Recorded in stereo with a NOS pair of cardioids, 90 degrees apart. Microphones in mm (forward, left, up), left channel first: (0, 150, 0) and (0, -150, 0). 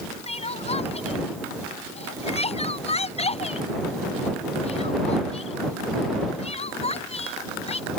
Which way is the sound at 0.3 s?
20° left.